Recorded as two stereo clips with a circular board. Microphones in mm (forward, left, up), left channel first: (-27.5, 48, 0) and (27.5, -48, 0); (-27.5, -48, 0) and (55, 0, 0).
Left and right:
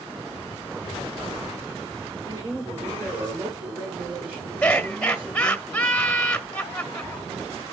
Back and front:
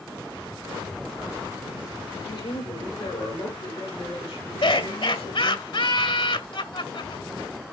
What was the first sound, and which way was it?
A woman speaking, 130° right.